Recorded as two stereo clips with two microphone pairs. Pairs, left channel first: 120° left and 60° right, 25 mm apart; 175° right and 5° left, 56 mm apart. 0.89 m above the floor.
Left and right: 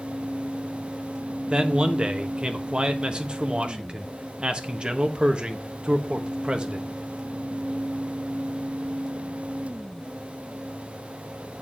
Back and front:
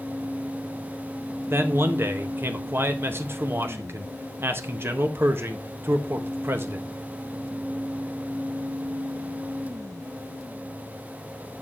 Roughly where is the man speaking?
Ahead right.